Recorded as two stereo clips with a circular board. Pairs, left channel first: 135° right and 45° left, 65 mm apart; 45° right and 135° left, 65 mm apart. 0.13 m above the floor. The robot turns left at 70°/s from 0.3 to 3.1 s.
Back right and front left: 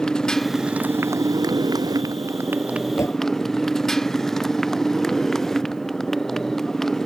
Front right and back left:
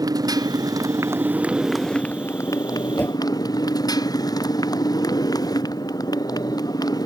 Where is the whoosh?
100° right; by 3.2 s 110° right.